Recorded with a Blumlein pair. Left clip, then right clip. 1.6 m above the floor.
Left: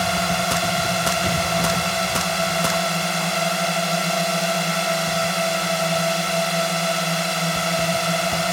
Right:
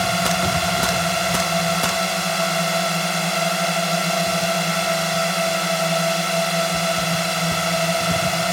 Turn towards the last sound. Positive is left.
turn(degrees=0)